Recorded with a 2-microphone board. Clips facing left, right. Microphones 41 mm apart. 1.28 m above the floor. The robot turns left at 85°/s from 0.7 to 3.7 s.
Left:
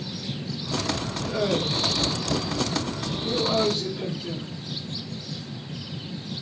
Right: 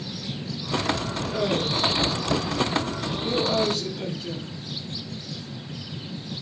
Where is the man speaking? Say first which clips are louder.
Left 1 dB; 15° left, 3 m; by 4.5 s 165° left, 3 m.